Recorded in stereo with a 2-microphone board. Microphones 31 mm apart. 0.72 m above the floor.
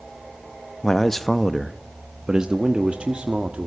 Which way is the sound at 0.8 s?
20° left (ahead or behind).